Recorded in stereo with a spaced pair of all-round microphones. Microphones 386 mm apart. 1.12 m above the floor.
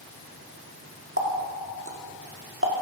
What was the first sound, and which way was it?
A running tap, 35° right (ahead or behind).